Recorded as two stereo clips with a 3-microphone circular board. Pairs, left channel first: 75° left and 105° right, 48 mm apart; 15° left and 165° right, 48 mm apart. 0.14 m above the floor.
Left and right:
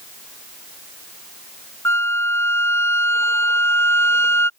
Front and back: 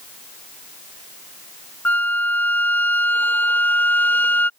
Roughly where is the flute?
Ahead left.